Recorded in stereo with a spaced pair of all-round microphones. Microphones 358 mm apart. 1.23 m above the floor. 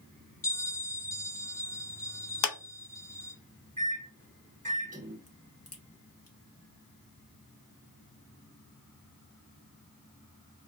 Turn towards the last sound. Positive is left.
turn(degrees=40)  # may be behind; listen again after turning